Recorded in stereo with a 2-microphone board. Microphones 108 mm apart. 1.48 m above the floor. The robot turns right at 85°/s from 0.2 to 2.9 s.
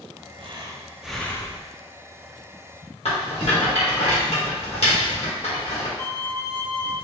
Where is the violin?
25° left (ahead or behind), 1.0 m.